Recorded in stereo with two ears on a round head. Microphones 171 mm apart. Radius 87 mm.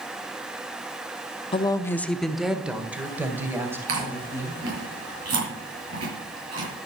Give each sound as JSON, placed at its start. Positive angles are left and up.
{"t": 1.5, "sound": "a woman speaking", "side_deg": 25, "distance_m": 0.7}
{"t": 3.9, "sound": "chewing", "side_deg": -75, "distance_m": 6.5}